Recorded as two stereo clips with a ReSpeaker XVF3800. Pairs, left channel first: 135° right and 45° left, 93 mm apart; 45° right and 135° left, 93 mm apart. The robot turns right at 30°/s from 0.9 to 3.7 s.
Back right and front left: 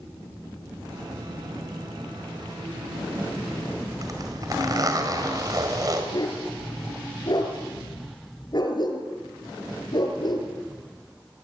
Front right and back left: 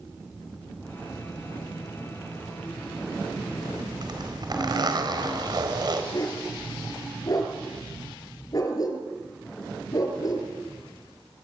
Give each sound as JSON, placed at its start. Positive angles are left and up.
{"t": 4.0, "sound": "a zipper", "azimuth_deg": 95, "distance_m": 4.5}
{"t": 6.1, "sound": "a dog barking", "azimuth_deg": -95, "distance_m": 5.5}